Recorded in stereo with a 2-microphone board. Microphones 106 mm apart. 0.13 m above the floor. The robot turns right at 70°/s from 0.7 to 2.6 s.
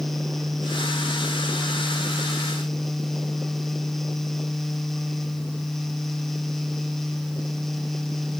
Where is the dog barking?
No dog barking in this recording.